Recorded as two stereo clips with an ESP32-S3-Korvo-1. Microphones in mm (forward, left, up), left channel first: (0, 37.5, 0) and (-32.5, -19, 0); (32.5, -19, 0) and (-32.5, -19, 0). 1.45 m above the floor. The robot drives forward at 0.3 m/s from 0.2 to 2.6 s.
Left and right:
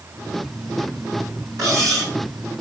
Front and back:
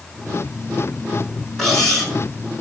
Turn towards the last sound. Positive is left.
turn(degrees=-85)